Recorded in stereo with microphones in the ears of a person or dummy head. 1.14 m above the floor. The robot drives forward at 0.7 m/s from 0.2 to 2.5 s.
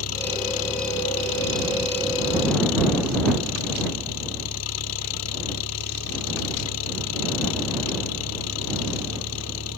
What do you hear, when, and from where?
0.0 s an engine running: 85° left; by 9.8 s 80° left